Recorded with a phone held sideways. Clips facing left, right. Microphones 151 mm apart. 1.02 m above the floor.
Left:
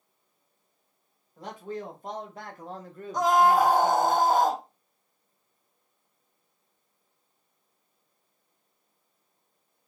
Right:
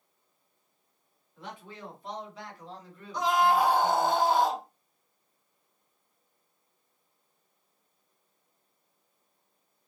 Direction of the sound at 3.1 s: 45° left (ahead or behind).